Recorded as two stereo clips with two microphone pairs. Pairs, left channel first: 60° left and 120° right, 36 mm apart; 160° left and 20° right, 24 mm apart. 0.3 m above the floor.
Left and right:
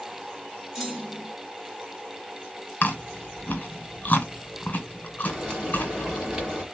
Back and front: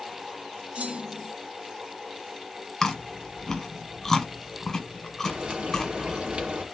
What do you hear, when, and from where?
0.8 s a clunk: 40° right, 2 m
2.8 s chewing: 95° left, 1.2 m
5.2 s frying: 55° right, 2.5 m